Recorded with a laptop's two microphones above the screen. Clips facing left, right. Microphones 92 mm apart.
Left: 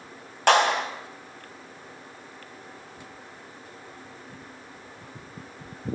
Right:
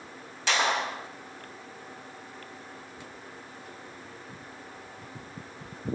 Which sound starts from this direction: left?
A clap, at 0.5 s.